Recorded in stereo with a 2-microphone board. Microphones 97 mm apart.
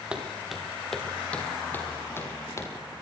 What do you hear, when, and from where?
0.1 s footsteps: 10° right (ahead or behind), 5 m; by 2.7 s 30° left (ahead or behind), 7 m